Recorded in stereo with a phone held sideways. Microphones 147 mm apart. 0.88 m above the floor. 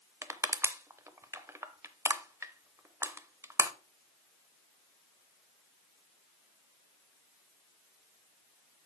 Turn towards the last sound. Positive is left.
turn(degrees=-20)  # may be behind; listen again after turning